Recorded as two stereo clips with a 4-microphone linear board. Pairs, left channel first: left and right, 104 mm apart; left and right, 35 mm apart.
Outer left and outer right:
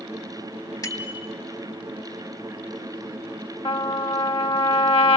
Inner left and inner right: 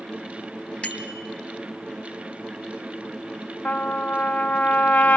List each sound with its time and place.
0.8 s a bicycle bell: 35° left (ahead or behind), 3 m
3.6 s a trumpet: 65° left (ahead or behind), 1.3 m